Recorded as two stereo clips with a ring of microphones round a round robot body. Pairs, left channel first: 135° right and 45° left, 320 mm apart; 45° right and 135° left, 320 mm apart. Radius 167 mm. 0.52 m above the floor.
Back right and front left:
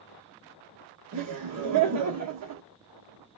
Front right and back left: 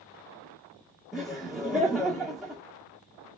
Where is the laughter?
50° left, 0.9 m.